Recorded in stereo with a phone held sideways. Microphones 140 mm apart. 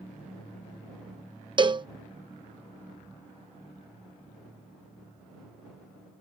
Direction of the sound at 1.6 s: 35° right (ahead or behind).